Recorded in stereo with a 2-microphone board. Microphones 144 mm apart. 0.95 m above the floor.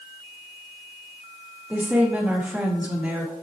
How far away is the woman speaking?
About 1.5 m.